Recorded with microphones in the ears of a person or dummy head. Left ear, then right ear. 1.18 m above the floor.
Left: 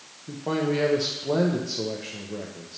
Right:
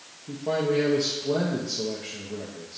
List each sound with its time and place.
0.3 s a man speaking: 20° left (ahead or behind), 0.7 m